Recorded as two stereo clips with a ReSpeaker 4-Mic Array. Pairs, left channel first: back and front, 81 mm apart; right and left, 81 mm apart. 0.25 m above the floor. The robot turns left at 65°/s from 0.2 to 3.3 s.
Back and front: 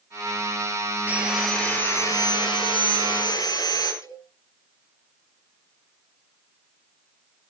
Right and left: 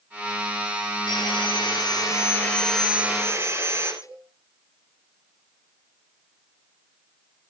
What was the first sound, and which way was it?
Sawing, 70° right.